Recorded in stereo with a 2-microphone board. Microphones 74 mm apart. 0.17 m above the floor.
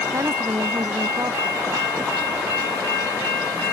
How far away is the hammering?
I don't hear hammering.